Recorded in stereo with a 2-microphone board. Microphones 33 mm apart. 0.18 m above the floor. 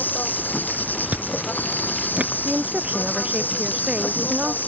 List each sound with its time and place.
0.0 s an insect: 80° left
1.1 s chewing: 50° right (ahead or behind)
2.5 s a woman speaking: 40° right (ahead or behind)